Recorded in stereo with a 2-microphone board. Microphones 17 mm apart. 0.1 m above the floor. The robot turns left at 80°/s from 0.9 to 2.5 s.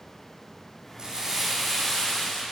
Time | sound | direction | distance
1.0 | crumpling | 130° right | 5 m